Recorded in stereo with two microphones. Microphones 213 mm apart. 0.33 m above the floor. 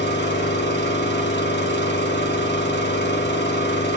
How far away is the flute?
No flute in this recording.